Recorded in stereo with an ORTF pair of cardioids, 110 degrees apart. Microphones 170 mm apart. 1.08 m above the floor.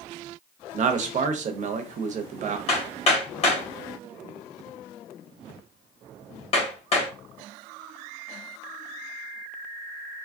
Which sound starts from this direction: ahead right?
A man speaking, at 0.7 s.